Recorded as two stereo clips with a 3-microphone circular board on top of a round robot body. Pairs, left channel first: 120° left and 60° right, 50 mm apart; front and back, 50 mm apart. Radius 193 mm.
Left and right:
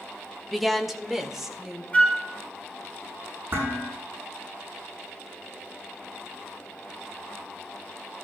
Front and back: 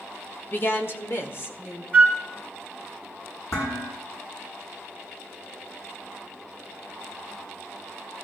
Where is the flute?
60° left, 5.5 m.